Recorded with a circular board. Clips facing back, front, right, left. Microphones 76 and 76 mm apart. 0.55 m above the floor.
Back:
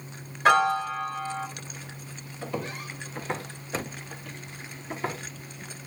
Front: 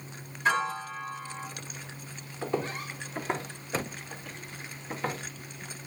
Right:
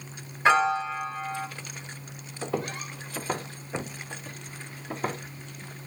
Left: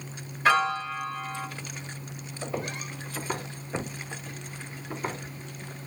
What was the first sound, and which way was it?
A piano, 155° right.